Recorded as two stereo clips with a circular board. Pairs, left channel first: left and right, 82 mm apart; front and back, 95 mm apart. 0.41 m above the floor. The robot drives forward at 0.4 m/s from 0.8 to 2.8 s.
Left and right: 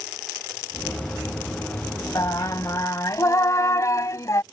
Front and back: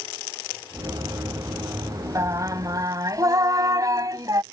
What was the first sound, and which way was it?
Singing, 130° left.